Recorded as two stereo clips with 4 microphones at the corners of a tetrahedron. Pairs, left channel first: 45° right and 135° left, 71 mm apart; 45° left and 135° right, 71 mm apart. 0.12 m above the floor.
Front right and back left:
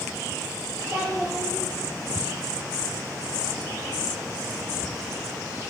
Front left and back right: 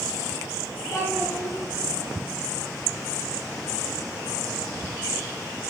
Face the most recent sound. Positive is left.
turn(degrees=80)